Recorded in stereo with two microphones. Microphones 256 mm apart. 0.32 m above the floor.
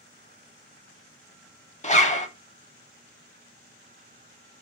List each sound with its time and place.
1.8 s a zipper: 25° left (ahead or behind), 0.5 m